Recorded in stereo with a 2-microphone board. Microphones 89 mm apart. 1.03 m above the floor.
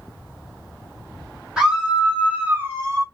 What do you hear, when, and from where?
1.6 s a scream: 5° right (ahead or behind), 2.5 m; by 3.0 s 45° right (ahead or behind), 0.9 m